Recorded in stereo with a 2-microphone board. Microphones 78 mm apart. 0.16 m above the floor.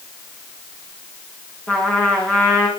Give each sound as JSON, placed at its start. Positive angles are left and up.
{"t": 1.7, "sound": "a trumpet", "side_deg": 15, "distance_m": 7.0}